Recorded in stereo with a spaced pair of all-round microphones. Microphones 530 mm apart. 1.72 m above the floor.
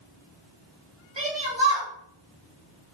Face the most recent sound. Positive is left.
turn(degrees=-60)  # may be behind; listen again after turning